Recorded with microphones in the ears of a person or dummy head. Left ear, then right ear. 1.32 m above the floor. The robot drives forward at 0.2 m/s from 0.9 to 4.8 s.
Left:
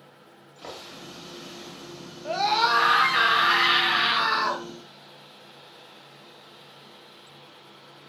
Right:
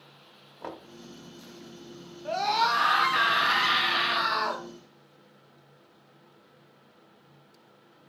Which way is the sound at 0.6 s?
75° right (ahead or behind).